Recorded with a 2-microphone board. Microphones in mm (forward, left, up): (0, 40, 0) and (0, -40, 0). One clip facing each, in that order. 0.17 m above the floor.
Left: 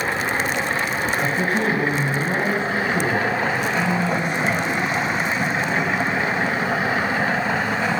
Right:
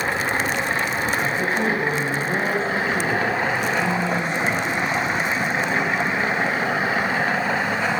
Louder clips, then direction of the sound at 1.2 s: Left 1 dB; 65° left (ahead or behind).